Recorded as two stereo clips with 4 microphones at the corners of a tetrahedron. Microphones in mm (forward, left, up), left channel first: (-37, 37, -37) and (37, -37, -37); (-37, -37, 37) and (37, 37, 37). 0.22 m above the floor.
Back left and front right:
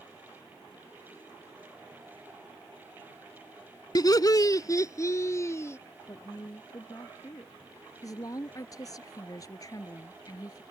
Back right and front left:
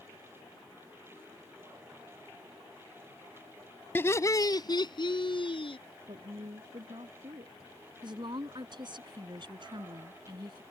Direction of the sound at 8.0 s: 85° left.